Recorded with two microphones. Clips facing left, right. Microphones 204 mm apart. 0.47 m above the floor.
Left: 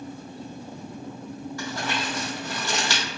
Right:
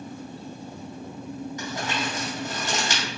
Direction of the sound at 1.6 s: 20° right (ahead or behind).